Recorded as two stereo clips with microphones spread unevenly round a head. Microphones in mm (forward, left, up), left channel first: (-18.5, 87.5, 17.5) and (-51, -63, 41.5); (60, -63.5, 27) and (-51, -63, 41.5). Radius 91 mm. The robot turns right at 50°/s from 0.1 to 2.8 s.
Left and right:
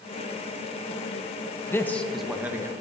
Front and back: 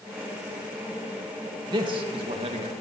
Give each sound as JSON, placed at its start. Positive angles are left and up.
{"t": 1.7, "sound": "a man speaking", "azimuth_deg": 135, "distance_m": 1.2}